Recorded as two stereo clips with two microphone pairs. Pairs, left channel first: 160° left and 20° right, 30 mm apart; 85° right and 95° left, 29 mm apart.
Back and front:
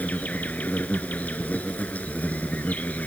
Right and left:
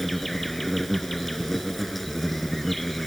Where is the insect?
170° right.